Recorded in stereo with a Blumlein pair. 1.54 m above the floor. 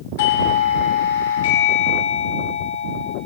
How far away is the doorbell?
About 3 m.